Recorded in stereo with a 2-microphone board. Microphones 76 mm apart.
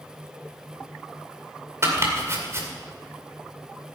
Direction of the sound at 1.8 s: 35° right (ahead or behind).